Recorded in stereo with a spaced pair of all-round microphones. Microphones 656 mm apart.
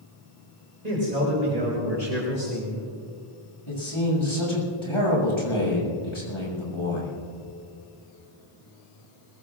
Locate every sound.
0.8 s a man speaking: 80° right, 5 m; by 2.9 s 75° right (ahead or behind), 4 m
3.7 s a man speaking: 45° left (ahead or behind), 7.5 m